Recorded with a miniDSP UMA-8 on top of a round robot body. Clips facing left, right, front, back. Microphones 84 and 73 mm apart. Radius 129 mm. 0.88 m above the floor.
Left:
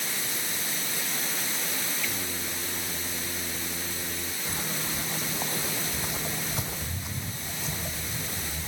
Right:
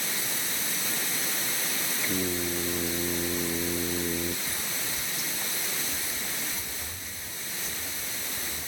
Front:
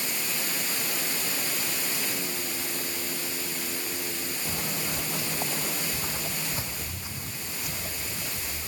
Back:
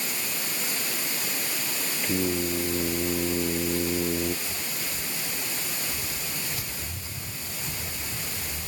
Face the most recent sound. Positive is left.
turn(degrees=90)